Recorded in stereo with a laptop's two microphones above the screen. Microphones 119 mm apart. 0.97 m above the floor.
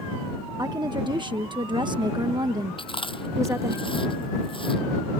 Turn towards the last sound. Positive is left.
turn(degrees=45)  # may be behind; listen again after turning